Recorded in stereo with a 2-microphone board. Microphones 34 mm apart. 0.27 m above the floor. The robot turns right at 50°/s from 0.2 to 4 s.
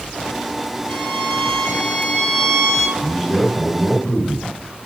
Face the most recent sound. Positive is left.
turn(degrees=20)  # may be behind; listen again after turning